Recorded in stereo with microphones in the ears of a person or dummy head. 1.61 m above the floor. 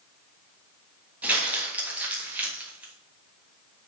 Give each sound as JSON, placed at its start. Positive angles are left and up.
{"t": 1.2, "sound": "crumpling", "side_deg": -10, "distance_m": 3.0}